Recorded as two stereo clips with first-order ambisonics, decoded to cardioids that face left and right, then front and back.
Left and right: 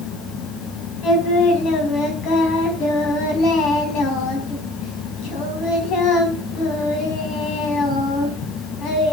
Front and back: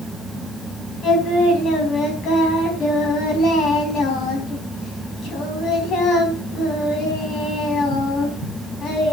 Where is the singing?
50° left, 4.5 m.